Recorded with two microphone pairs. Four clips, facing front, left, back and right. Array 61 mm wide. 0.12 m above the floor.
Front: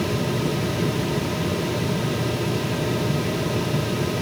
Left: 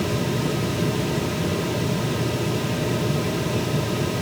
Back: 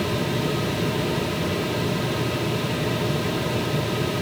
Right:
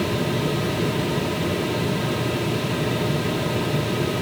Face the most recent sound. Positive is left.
No sound to turn to.